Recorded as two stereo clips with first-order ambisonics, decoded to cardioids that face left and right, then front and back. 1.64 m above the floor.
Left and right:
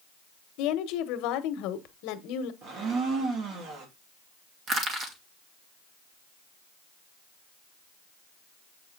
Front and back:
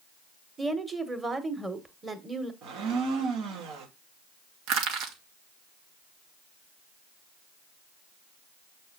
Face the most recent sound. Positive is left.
turn(degrees=-150)